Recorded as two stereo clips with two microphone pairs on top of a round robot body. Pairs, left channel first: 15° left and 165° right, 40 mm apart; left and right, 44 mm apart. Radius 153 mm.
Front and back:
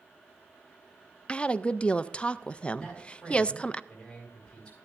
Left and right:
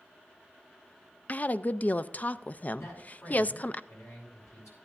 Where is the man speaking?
85° left, 6 m.